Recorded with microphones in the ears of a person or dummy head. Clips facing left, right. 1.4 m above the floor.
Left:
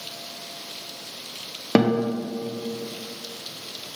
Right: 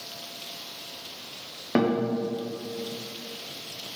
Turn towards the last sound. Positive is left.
turn(degrees=60)  # may be behind; listen again after turning